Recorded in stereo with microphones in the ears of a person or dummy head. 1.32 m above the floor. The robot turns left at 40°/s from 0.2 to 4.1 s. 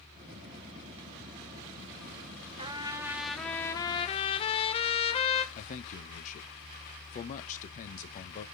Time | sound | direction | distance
2.6 | a trumpet | 150° right | 0.7 m
5.5 | a man speaking | 45° left (ahead or behind) | 1.2 m